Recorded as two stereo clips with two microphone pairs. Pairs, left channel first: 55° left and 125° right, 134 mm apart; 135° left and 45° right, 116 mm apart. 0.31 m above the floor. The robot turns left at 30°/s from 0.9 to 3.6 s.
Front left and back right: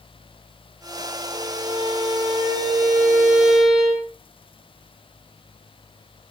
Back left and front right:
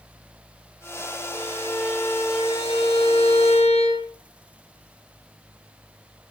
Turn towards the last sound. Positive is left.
turn(degrees=150)